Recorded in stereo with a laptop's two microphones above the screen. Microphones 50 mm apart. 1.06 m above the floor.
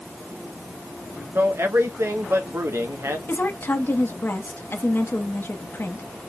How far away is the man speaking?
About 1.1 m.